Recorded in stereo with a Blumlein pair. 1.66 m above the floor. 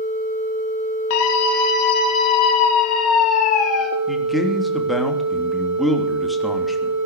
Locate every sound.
1.1 s a scream: 50° left, 2.5 m; by 3.9 s 30° left, 4.5 m
4.1 s a man speaking: 5° left, 3 m